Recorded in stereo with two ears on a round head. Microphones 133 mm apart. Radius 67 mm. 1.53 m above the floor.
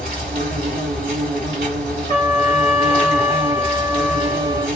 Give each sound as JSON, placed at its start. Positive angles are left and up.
{"t": 0.0, "sound": "an insect", "side_deg": -65, "distance_m": 2.0}
{"t": 2.1, "sound": "a trumpet", "side_deg": -45, "distance_m": 1.5}